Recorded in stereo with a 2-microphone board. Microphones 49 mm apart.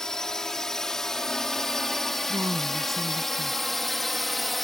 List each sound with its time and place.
0.0 s a drone: 10° left (ahead or behind); by 4.6 s centre (ahead or behind)
2.3 s a woman speaking: 90° right